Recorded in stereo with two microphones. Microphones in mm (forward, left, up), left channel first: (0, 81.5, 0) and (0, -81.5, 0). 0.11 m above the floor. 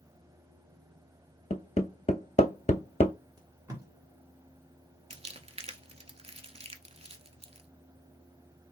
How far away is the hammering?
About 0.6 m.